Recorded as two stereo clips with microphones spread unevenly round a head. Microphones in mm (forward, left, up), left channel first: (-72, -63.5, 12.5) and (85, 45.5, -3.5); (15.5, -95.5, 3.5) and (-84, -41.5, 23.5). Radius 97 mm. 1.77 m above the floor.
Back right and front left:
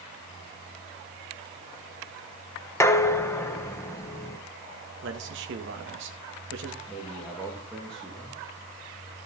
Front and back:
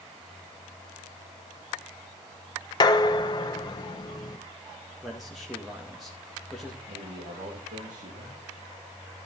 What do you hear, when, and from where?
2.8 s dishes clattering: 80° right, 1.0 m
5.0 s a man speaking: 65° left, 2.0 m
6.9 s a man speaking: 130° left, 2.5 m